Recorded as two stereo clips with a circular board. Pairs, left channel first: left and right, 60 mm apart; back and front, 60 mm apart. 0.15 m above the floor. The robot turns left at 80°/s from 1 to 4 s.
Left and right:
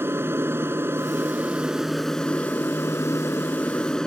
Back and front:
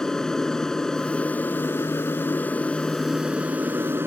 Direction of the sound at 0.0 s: 105° right.